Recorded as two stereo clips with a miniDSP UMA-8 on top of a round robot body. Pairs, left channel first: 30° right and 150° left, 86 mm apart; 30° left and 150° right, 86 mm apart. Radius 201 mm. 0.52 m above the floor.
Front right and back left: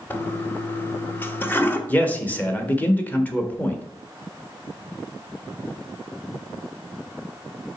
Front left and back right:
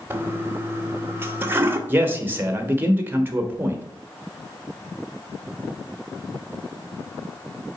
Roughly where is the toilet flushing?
Right.